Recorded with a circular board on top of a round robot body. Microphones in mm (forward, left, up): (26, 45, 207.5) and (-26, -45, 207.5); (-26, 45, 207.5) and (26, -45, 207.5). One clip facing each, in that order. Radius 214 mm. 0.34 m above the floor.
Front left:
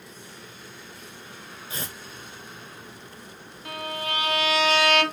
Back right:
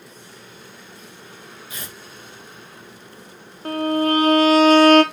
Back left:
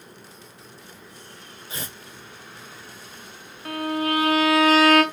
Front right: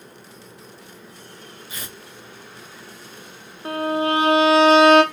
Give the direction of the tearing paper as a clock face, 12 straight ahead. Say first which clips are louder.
Front left 3 dB, back left 3 dB; 9 o'clock.